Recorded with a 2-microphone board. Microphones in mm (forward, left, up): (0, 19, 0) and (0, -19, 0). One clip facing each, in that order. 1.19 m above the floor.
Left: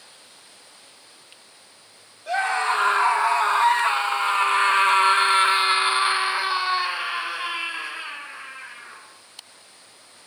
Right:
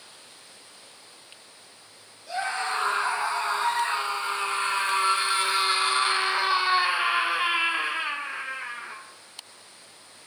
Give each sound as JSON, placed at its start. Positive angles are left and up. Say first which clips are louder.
{"t": 2.3, "sound": "a scream", "louder": "left 6 dB", "side_deg": 80, "distance_m": 4.0}